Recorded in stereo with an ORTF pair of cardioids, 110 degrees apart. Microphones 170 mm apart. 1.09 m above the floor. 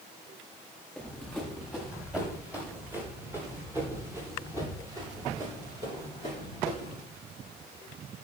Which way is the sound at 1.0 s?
5° left.